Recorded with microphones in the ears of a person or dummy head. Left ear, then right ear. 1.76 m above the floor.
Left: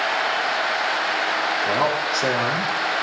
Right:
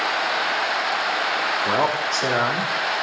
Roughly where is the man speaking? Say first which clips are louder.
Even; right.